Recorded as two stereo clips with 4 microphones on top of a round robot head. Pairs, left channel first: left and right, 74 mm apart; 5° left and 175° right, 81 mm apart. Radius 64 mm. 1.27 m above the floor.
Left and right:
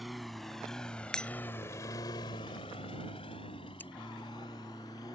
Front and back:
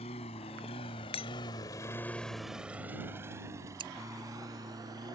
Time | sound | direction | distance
0.0 | a lawn mower | straight ahead | ?
1.1 | breaking glass | 10° left | ?
3.8 | scissors | 165° left | ?